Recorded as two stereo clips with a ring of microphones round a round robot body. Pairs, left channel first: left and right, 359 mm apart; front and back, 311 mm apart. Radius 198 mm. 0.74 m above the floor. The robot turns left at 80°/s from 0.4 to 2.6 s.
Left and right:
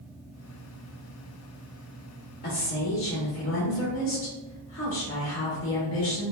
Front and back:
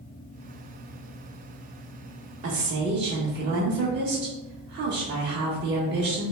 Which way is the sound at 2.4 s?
145° left.